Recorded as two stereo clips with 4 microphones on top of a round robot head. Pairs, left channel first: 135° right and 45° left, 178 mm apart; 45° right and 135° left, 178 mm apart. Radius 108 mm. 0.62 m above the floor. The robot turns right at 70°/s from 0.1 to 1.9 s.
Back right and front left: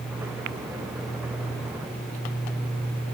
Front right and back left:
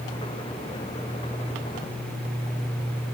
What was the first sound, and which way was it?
Only background noise.